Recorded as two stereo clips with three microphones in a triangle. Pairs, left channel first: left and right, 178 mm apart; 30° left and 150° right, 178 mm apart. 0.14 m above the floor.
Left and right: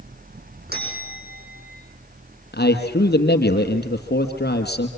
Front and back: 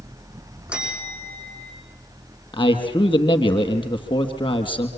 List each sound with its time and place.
0.7 s a bell: 65° right, 7 m
2.5 s a man speaking: 90° left, 3 m